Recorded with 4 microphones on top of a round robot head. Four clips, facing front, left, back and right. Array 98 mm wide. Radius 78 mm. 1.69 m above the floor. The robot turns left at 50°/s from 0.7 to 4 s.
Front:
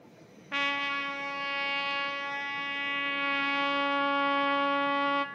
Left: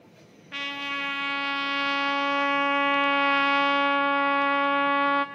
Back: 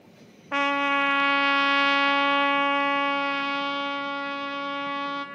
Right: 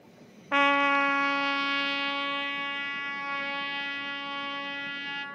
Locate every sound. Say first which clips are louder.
0.5 s a trumpet: right 11 dB, back 9 dB; 125° right, 0.5 m; by 5.2 s 70° left, 0.5 m